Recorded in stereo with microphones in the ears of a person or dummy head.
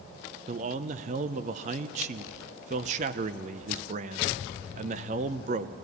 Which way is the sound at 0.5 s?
35° right (ahead or behind).